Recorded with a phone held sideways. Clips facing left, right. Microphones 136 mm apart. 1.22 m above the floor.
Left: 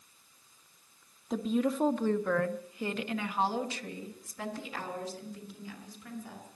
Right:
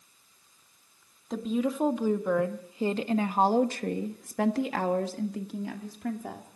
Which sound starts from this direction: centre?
A woman speaking, at 1.3 s.